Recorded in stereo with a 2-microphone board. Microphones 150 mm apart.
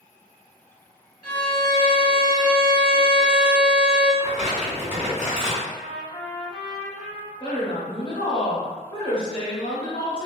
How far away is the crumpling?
About 1.4 m.